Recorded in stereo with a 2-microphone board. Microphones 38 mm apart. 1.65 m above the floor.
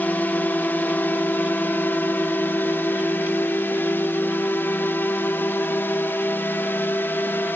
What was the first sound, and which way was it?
A drone, 50° left (ahead or behind).